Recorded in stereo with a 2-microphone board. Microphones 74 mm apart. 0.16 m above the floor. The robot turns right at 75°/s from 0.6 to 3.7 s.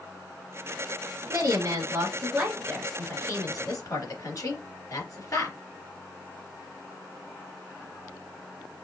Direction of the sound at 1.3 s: 55° right (ahead or behind).